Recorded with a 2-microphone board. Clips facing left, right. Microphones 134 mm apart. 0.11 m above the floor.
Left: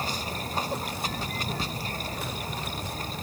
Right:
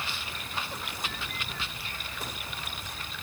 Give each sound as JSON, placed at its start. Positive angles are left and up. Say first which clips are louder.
{"t": 0.0, "sound": "running water", "louder": "left 7 dB", "side_deg": 40}